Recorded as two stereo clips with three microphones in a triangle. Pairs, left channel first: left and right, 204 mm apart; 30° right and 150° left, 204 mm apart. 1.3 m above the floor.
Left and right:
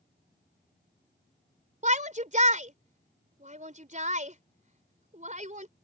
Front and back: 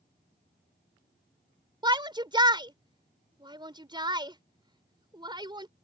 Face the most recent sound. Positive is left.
turn(degrees=-140)